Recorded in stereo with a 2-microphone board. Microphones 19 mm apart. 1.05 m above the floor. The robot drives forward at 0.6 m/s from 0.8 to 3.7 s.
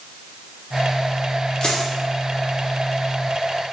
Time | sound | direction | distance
1.6 | a dropped coin | 45° left (ahead or behind) | 0.9 m